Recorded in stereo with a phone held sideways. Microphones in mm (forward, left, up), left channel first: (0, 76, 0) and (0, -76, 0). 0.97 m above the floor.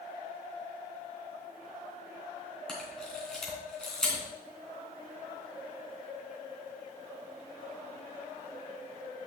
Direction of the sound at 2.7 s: 5° left (ahead or behind).